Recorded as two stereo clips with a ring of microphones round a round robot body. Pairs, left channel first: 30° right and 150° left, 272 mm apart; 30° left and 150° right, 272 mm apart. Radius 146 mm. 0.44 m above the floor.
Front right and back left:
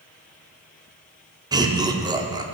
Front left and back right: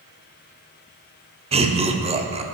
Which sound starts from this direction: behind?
Laughter, at 1.5 s.